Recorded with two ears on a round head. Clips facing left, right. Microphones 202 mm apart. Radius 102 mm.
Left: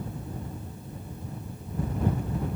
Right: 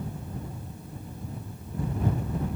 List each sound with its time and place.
Only background noise.